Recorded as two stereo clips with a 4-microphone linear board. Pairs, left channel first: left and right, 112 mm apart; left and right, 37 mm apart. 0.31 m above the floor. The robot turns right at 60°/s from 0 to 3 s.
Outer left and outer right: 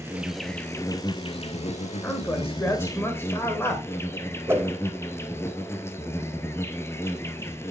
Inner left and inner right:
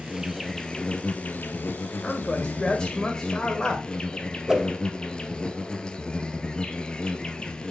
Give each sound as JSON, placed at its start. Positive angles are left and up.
{"t": 0.0, "sound": "an insect", "azimuth_deg": -25, "distance_m": 0.9}
{"t": 2.0, "sound": "a man speaking", "side_deg": 15, "distance_m": 1.4}
{"t": 4.5, "sound": "a whoosh", "side_deg": -20, "distance_m": 0.8}